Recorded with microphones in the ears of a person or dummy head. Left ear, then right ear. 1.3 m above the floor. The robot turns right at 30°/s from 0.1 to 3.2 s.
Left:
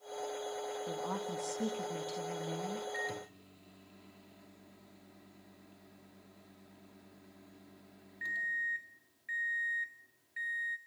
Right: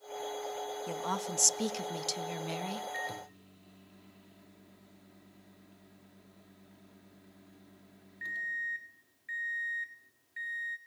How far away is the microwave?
About 2 m.